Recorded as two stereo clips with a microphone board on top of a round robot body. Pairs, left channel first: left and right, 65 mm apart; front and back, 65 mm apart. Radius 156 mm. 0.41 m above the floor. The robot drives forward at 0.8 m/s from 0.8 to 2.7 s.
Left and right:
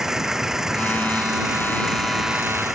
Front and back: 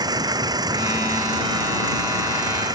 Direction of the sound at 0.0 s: 170° right.